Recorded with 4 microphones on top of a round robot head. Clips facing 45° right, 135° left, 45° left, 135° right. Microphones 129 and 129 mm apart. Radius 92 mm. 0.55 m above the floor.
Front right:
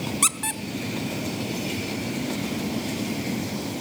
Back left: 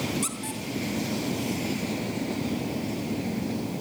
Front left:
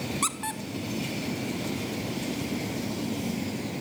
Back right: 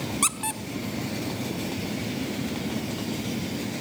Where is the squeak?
55° right, 1.3 m.